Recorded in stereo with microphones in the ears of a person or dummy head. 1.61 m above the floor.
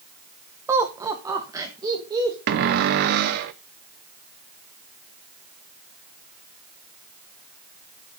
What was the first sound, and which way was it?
Laughter, 10° right (ahead or behind).